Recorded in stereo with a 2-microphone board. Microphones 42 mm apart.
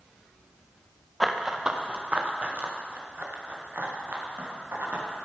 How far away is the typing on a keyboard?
No typing on a keyboard in this recording.